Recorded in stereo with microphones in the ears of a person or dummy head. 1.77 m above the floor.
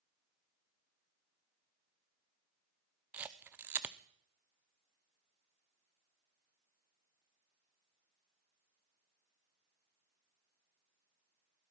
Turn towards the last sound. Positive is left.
turn(degrees=-5)  # may be behind; listen again after turning